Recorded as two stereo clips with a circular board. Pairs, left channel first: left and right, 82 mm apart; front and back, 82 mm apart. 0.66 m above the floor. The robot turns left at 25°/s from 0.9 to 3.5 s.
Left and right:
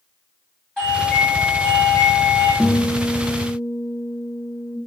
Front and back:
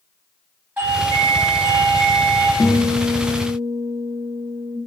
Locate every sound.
0.8 s a doorbell: 145° left, 1.5 m; by 2.5 s 105° left, 1.5 m
2.6 s a guitar: 10° right, 0.7 m; by 4.8 s 35° right, 0.7 m